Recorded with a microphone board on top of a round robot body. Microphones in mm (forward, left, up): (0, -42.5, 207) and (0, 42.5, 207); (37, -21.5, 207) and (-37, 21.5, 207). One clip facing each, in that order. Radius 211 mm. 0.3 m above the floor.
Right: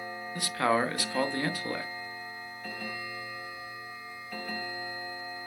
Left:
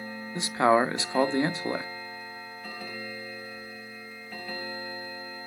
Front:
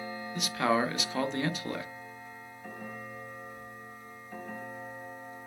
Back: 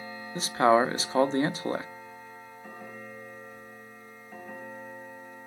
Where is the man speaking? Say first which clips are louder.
Left 5 dB, back 6 dB; 135° left, 1.1 m.